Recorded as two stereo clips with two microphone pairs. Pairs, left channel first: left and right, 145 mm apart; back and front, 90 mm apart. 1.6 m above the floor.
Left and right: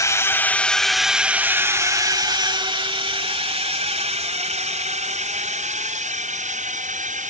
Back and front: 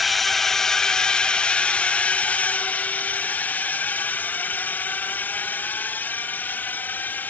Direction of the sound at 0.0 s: 90° left.